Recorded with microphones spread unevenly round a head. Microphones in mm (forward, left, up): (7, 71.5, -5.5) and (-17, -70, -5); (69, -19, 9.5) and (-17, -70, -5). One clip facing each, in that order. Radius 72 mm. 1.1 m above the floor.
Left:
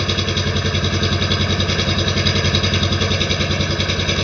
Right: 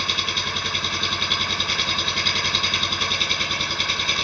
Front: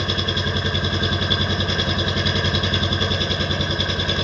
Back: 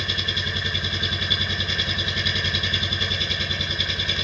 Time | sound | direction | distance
0.0 | an engine running | 100° left | ?